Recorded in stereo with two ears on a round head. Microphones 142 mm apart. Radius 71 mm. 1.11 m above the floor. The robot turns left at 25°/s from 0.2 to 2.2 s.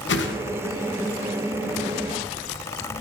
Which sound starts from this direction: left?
A whoosh, at 0.1 s.